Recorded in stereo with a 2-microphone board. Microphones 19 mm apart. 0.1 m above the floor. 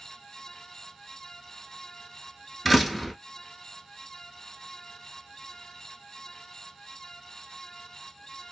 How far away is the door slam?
About 0.9 m.